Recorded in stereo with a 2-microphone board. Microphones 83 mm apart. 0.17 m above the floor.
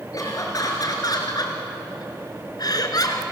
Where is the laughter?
45° left (ahead or behind), 3 m; by 3.2 s 50° left (ahead or behind), 2.5 m.